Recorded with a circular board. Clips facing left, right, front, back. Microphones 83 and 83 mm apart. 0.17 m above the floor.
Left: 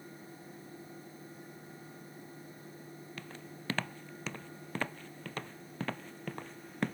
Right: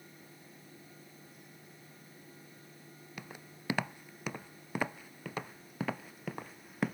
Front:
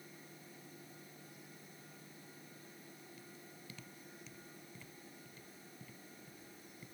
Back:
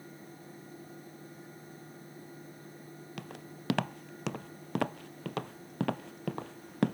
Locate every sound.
3.2 s footsteps: 165° right; by 7.0 s 175° right